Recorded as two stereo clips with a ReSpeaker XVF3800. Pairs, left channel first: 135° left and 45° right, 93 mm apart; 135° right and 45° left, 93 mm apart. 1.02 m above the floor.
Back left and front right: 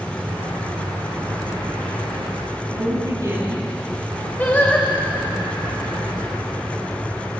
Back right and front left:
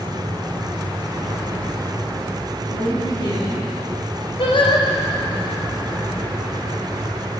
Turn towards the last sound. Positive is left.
turn(degrees=-155)